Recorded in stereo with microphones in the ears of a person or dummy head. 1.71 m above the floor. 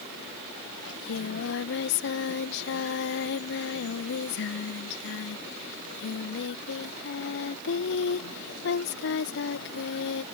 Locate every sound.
0.9 s singing: 60° left (ahead or behind)